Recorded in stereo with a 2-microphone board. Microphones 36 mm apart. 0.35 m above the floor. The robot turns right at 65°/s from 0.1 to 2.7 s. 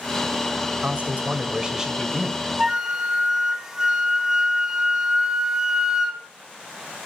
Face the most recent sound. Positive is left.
turn(degrees=-15)  # may be behind; listen again after turning